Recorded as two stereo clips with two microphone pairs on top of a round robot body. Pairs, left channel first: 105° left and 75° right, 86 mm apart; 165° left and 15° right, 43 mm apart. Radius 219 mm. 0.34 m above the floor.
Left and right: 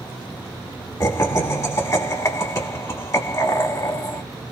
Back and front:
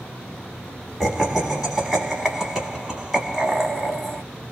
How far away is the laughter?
About 1.2 m.